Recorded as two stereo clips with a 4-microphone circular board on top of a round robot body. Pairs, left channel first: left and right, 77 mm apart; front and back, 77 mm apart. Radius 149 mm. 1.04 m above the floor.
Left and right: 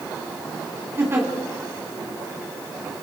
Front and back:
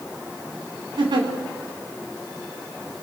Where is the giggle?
155° right, 3 m.